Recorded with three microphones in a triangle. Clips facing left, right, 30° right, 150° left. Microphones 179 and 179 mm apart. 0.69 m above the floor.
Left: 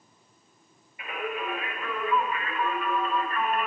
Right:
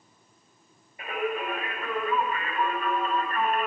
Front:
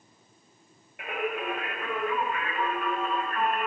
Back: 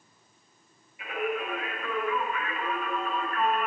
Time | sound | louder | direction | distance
1.0 | singing | right 3 dB, back 1 dB | 40° right | 5.5 m